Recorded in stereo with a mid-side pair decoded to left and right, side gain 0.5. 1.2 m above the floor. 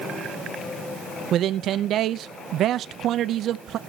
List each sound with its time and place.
1.3 s a man speaking: 60° right, 0.7 m